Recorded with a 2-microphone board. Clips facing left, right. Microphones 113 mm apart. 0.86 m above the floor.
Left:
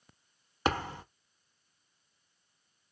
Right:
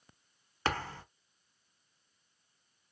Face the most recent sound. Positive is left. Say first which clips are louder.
# left 3 dB
turn(degrees=20)  # may be behind; listen again after turning